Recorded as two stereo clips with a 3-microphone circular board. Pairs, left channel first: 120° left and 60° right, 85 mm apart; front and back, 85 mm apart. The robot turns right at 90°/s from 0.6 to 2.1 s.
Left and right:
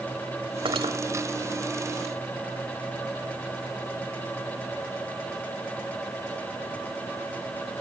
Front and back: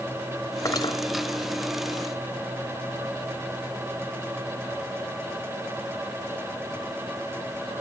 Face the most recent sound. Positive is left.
turn(degrees=80)